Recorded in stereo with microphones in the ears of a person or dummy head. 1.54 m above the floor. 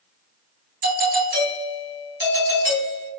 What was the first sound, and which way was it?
A doorbell, 45° right (ahead or behind).